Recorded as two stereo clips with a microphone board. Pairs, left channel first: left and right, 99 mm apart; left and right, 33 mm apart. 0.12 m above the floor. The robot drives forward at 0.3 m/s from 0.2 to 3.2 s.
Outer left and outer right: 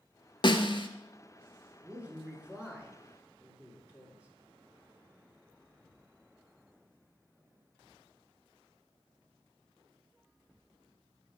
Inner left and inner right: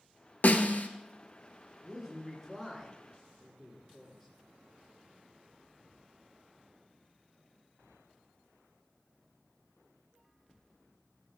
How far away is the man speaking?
About 1.9 m.